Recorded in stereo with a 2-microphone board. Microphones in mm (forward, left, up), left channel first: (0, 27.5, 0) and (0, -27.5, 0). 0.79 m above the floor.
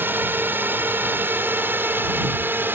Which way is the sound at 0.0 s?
40° right (ahead or behind).